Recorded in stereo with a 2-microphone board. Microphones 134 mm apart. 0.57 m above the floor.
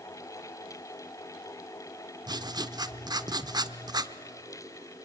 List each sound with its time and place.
2.3 s writing: 30° right (ahead or behind), 0.7 m